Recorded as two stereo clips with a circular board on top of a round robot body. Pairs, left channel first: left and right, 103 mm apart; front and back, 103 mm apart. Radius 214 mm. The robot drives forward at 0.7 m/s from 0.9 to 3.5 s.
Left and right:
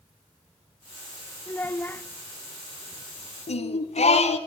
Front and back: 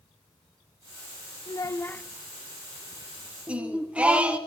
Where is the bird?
I don't hear a bird.